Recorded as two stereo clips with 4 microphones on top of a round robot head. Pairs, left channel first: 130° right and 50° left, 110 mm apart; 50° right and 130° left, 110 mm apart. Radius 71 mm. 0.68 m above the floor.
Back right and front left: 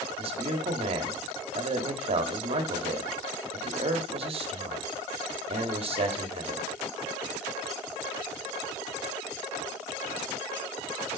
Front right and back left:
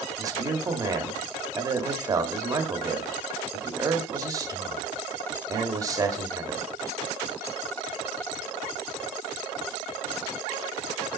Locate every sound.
0.2 s a man speaking: 70° left, 1.5 m